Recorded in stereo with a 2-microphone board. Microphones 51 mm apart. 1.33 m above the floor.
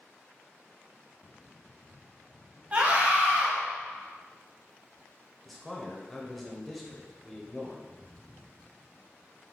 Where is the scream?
30° right (ahead or behind), 1.2 m.